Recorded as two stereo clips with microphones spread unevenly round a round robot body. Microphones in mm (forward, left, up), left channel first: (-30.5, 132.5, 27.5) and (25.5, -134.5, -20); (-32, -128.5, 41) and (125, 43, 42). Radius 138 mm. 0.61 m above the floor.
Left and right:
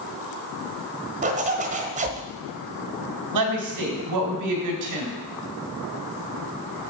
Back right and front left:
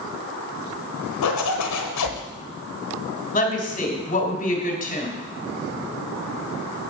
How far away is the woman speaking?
About 3 m.